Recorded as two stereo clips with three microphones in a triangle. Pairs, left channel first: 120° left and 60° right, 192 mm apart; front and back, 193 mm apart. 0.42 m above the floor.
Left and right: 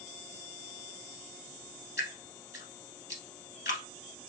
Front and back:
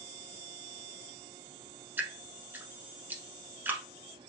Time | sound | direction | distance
2.0 | dripping | 100° left | 0.9 m